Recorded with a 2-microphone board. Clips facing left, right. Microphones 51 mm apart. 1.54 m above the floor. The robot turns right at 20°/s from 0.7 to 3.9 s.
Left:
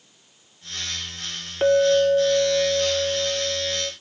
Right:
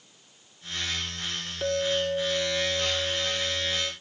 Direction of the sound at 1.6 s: 70° left.